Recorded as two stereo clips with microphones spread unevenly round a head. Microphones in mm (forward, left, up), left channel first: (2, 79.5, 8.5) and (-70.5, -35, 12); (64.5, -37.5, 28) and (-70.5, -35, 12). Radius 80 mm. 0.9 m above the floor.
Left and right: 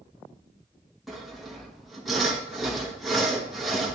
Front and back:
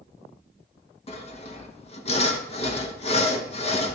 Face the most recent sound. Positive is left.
turn(degrees=-30)